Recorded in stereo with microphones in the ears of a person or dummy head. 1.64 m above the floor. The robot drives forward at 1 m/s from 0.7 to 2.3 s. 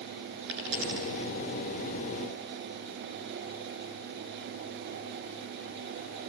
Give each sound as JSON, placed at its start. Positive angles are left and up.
{"t": 0.5, "sound": "a dropped coin", "side_deg": -70, "distance_m": 8.0}